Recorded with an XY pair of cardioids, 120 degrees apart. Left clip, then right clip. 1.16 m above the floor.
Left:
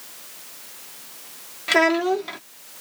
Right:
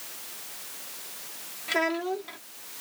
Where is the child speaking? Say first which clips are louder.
Left 9 dB; 55° left.